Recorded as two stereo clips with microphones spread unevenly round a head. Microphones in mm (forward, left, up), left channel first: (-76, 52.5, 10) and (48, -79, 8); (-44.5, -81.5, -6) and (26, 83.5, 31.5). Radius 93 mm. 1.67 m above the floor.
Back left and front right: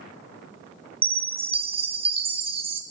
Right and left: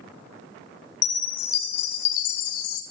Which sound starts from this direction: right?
A chime, at 1.0 s.